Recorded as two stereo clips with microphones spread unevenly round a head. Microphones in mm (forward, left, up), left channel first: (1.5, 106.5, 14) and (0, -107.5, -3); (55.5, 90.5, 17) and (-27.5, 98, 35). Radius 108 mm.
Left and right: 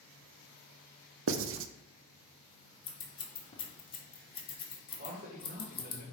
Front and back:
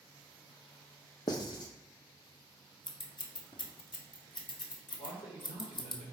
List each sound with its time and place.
1.3 s writing: 60° right, 0.5 m
2.9 s scissors: 20° left, 1.4 m
5.0 s a man speaking: 35° right, 2.5 m